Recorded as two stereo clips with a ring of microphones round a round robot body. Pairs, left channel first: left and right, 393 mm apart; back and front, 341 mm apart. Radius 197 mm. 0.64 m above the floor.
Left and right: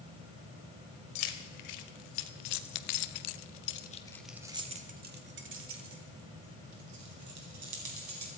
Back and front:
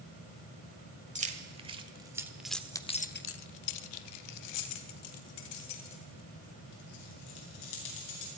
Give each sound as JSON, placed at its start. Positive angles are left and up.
{"t": 1.1, "sound": "keys jangling", "azimuth_deg": 70, "distance_m": 1.8}